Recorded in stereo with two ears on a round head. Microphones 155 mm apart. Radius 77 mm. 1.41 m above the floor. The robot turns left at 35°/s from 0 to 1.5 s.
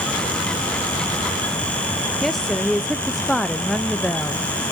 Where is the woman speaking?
Centre (ahead or behind), 0.5 m.